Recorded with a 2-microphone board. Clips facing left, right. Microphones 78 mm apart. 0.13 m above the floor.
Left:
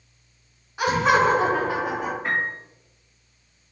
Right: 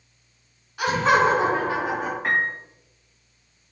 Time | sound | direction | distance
0.8 | laughter | 25° left (ahead or behind) | 1.1 m
2.2 | a piano | 70° right (ahead or behind) | 1.5 m